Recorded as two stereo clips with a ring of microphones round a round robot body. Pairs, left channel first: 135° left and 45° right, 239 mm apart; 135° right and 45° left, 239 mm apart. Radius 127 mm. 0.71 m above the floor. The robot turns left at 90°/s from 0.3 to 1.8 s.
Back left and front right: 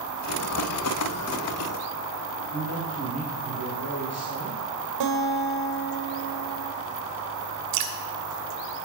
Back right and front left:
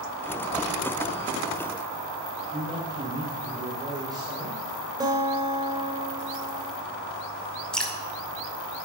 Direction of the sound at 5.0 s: 30° right.